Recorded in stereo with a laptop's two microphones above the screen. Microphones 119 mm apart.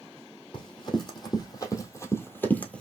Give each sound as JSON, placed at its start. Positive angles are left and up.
{"t": 0.5, "sound": "running footsteps", "side_deg": 40, "distance_m": 2.0}